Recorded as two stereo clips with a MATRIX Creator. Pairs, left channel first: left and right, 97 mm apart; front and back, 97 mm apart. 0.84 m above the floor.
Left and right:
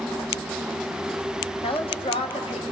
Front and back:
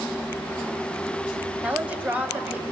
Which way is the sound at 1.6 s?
105° left.